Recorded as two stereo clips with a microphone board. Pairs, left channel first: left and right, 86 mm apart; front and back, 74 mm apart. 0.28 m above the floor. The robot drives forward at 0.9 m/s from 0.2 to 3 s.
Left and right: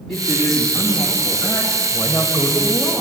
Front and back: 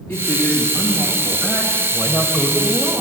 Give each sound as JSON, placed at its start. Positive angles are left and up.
{"t": 0.1, "sound": "a woman speaking", "azimuth_deg": 10, "distance_m": 2.0}